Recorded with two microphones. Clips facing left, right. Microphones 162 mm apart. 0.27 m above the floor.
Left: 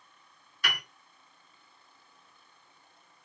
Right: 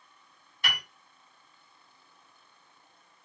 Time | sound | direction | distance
0.6 | a piano | 25° right (ahead or behind) | 1.5 m